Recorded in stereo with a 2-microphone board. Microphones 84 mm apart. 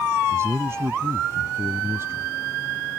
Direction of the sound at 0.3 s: 30° right (ahead or behind).